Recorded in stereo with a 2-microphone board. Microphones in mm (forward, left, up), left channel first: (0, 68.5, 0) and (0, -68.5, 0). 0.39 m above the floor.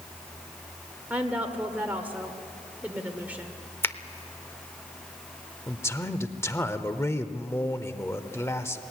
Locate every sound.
1.1 s a woman speaking: 10° right (ahead or behind), 1.4 m
3.8 s a finger snap: 15° left (ahead or behind), 0.6 m
5.7 s a man speaking: 20° left (ahead or behind), 0.9 m